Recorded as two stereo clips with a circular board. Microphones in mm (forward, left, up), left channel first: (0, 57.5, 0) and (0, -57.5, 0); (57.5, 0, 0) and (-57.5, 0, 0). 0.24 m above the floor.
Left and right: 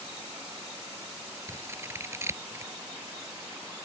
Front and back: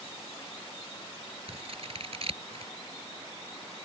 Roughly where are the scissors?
Behind right.